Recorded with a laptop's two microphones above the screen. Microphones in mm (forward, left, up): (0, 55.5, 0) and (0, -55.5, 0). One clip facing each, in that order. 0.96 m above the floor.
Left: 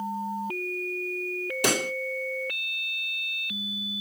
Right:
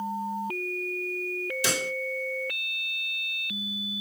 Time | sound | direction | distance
1.6 | a pop | 60° left (ahead or behind) | 1.0 m